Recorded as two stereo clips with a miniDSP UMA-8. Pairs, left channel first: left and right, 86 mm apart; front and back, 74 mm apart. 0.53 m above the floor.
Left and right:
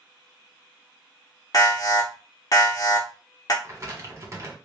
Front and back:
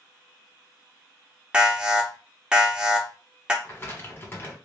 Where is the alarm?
105° left, 0.8 m.